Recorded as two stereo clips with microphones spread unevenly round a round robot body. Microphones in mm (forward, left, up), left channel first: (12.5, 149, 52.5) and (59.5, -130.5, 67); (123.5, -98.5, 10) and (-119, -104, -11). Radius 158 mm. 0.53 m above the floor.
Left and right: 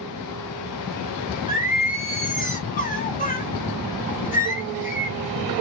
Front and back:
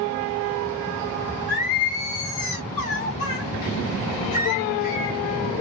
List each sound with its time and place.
1.5 s singing: 55° left, 1.4 m